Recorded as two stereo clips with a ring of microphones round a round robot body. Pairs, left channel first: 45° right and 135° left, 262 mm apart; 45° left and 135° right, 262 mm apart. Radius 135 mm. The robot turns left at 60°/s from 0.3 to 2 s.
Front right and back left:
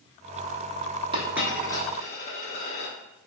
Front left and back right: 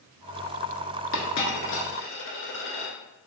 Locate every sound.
1.1 s a dropped coin: 65° left, 1.0 m; by 3.0 s 15° left, 1.0 m